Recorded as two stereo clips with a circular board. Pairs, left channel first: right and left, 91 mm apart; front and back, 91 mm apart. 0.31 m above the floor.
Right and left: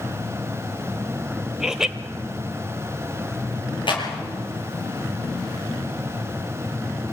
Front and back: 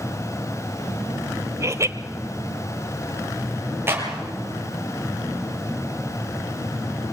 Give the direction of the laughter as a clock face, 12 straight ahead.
6 o'clock.